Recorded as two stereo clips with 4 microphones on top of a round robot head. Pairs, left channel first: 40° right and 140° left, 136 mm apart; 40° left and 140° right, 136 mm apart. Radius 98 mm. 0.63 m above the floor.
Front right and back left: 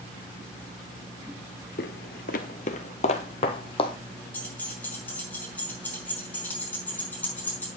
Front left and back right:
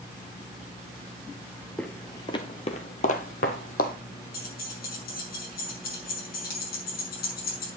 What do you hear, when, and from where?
1.8 s footsteps: 45° right, 0.8 m; by 4.0 s 20° left, 1.6 m
4.3 s keys jangling: 40° left, 6 m